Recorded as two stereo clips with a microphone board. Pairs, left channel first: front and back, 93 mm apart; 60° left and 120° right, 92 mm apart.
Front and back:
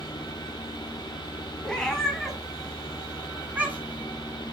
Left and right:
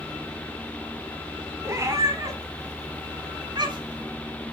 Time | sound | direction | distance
1.6 | a cat meowing | 80° right | 1.8 m